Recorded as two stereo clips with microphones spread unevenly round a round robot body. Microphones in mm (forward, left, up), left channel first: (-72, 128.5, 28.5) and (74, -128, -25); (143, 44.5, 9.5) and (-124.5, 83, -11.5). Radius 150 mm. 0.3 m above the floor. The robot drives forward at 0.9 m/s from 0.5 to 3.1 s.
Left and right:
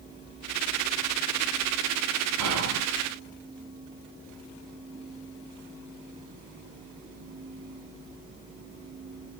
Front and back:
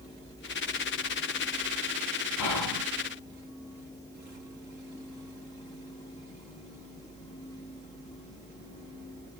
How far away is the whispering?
About 2.0 m.